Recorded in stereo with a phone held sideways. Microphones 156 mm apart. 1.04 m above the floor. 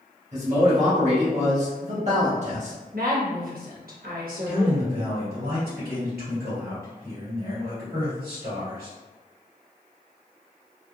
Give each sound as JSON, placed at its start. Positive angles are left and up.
{"t": 0.3, "sound": "a man speaking", "side_deg": -50, "distance_m": 1.2}
{"t": 2.9, "sound": "a woman speaking", "side_deg": -70, "distance_m": 1.2}
{"t": 4.5, "sound": "a man speaking", "side_deg": -85, "distance_m": 1.9}